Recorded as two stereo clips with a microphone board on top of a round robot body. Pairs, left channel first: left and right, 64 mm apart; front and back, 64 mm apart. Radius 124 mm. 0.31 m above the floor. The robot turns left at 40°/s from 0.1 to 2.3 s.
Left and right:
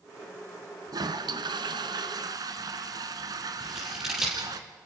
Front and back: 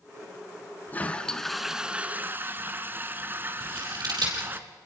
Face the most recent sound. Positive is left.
turn(degrees=-175)